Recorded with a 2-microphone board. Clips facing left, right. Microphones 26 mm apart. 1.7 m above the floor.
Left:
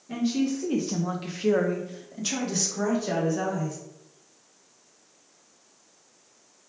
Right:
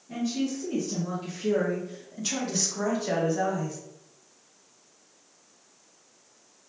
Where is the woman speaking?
60° left (ahead or behind), 0.9 m; by 3.8 s 15° right (ahead or behind), 1.4 m.